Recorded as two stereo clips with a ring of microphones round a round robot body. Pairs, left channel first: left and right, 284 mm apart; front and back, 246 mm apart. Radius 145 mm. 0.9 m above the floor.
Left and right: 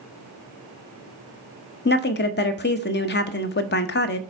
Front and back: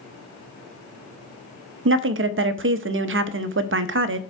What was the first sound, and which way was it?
A woman speaking, 145° left.